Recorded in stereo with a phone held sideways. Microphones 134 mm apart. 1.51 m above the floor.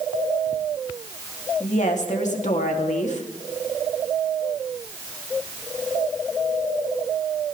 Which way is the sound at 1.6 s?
65° left (ahead or behind).